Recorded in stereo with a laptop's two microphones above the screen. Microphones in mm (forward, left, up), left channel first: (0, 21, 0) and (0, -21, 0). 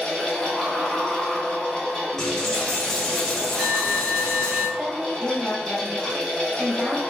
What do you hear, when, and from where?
0.0 s a fan: 15° left (ahead or behind), 1.6 m
2.2 s a dropped coin: 10° left (ahead or behind), 1.8 m
4.8 s a woman speaking: 5° right (ahead or behind), 1.2 m